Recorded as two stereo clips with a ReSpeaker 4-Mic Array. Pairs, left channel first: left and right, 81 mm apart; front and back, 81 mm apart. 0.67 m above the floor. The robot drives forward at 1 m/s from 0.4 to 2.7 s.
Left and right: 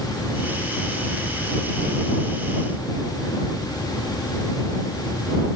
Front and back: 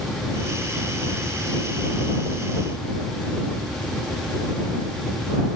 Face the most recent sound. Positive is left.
No sound to turn to.